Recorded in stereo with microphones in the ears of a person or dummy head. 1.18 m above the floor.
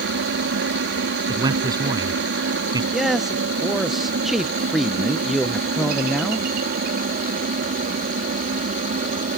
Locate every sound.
0.0 s a helicopter: 55° right (ahead or behind); by 9.4 s 40° right (ahead or behind)
1.3 s a man speaking: 20° right (ahead or behind)
2.9 s a man speaking: centre (ahead or behind)